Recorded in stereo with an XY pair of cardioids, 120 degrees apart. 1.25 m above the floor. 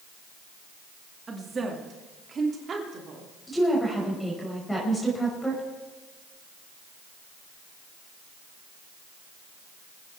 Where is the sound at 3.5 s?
10° left, 6 m.